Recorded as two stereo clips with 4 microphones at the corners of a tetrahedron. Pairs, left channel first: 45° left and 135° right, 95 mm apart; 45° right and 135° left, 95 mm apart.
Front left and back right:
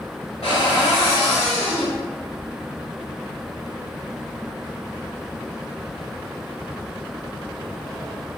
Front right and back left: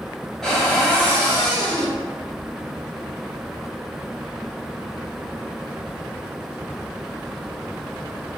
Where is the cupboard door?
40° left, 1.2 m.